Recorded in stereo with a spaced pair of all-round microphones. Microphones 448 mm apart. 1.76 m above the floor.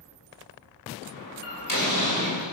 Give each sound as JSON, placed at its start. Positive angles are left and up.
{"t": 1.1, "sound": "a door slam", "side_deg": 45, "distance_m": 6.0}